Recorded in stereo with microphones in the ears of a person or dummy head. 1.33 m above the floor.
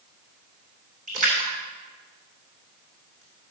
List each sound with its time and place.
1.1 s a splash: 40° right (ahead or behind), 2.5 m